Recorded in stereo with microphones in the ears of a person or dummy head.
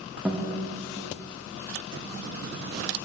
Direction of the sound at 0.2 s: 5° right (ahead or behind).